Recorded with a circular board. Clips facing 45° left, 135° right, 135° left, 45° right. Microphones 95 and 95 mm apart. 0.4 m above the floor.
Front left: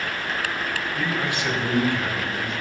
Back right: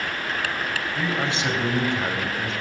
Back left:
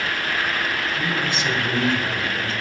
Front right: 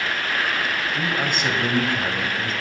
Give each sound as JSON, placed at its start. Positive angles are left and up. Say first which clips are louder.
{"t": 0.9, "sound": "a man speaking", "louder": "back right 1 dB, even", "azimuth_deg": -75, "distance_m": 1.9}